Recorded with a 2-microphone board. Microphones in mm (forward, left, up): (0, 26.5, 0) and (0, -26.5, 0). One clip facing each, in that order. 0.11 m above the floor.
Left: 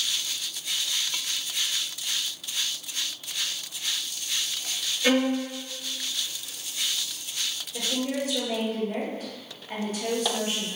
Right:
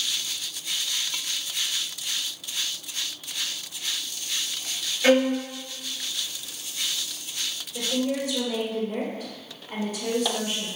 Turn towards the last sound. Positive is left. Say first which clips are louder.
# right 2 dB
turn(degrees=50)  # may be behind; listen again after turning